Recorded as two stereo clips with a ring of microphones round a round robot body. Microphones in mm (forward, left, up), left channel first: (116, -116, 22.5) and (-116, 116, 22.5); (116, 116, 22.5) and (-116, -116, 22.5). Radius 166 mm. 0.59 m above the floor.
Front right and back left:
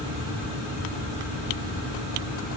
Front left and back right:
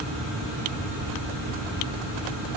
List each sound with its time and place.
Only background noise.